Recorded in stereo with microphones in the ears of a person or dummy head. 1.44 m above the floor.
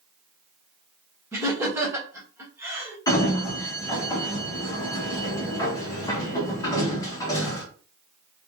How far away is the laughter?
About 1.3 m.